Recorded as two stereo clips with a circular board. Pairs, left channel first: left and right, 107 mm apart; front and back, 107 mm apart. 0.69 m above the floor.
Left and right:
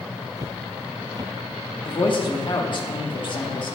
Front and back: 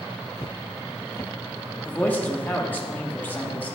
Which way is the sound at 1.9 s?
70° left.